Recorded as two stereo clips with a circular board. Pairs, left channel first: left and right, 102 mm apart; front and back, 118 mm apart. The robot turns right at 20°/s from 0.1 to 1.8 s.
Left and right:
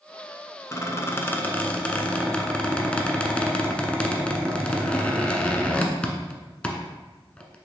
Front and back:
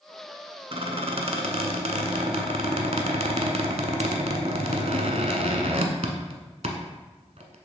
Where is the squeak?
145° left, 1.1 m; by 7.5 s 170° left, 1.1 m.